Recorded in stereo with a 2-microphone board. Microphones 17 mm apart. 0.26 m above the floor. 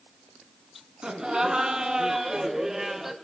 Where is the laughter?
45° right (ahead or behind), 3 m; by 3.1 s 15° right (ahead or behind), 2 m.